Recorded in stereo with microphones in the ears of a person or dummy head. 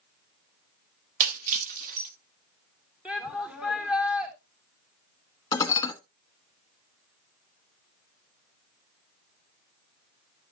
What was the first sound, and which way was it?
Breaking glass, 45° right (ahead or behind).